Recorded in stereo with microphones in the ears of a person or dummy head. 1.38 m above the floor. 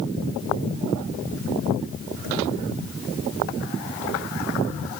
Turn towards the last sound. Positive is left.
No sound to turn to.